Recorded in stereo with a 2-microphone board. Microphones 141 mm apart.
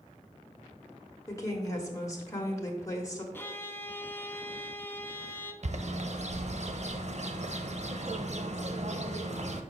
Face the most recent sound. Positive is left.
turn(degrees=-55)  # may be behind; listen again after turning